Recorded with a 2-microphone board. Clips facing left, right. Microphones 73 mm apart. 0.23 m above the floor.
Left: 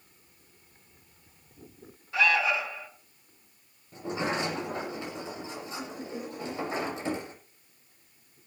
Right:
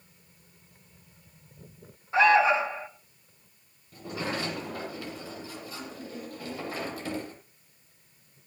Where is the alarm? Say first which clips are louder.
Right 6 dB; 35° right (ahead or behind), 1.7 m.